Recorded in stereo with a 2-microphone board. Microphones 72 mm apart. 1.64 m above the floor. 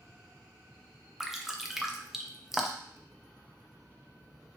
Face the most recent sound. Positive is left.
turn(degrees=-5)  # may be behind; listen again after turning